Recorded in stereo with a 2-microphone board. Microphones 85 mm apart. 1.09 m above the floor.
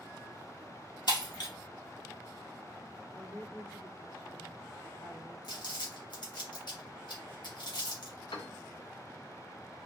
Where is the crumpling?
65° left (ahead or behind), 2.5 m.